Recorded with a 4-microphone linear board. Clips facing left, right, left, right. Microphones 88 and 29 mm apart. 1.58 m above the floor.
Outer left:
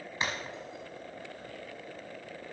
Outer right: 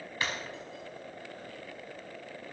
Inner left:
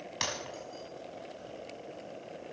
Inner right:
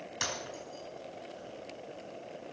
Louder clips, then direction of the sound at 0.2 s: Outer left 1 dB, inner left 1 dB; 25° left (ahead or behind).